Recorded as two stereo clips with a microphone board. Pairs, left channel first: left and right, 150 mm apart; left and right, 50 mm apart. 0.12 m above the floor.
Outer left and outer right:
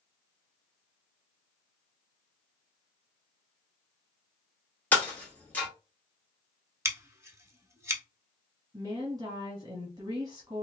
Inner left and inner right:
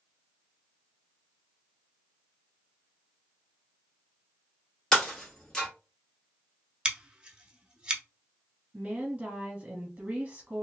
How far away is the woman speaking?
About 1.1 m.